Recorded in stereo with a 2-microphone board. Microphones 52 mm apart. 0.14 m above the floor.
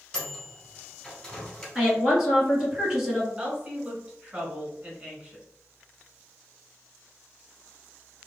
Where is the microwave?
15° left (ahead or behind), 1.0 m.